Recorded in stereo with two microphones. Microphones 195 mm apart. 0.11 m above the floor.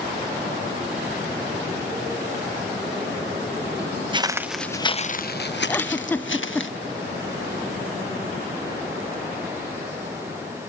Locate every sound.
4.1 s footsteps: 25° right (ahead or behind), 0.8 m; by 6.7 s 85° left, 1.7 m
5.7 s a giggle: 10° left (ahead or behind), 0.6 m